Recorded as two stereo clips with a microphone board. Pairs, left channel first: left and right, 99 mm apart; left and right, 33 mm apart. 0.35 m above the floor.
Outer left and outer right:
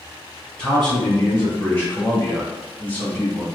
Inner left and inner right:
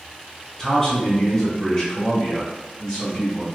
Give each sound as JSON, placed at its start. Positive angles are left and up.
{"t": 0.6, "sound": "a man speaking", "side_deg": 15, "distance_m": 1.3}